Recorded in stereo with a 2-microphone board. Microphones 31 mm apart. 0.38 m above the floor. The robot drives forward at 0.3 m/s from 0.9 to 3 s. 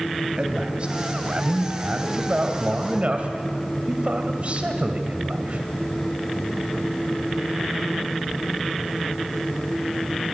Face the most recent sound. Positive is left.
turn(degrees=-45)  # may be behind; listen again after turning